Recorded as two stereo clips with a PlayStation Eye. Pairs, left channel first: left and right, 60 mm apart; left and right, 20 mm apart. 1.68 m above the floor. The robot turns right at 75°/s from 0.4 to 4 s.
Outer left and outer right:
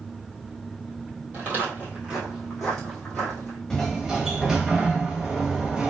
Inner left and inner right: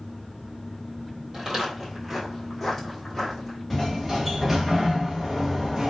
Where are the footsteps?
30° right (ahead or behind), 1.9 m; by 3.6 s 10° right (ahead or behind), 1.7 m.